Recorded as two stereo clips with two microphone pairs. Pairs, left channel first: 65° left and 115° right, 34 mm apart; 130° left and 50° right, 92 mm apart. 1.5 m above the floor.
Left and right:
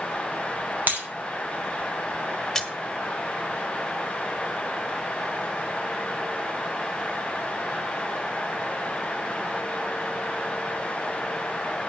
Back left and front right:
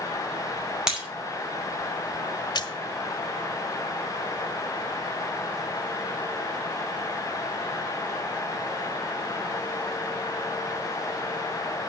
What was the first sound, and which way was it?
Breaking glass, 130° right.